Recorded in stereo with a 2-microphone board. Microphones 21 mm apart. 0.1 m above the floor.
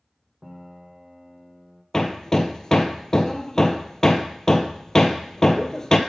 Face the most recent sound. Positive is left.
turn(degrees=30)  # may be behind; listen again after turning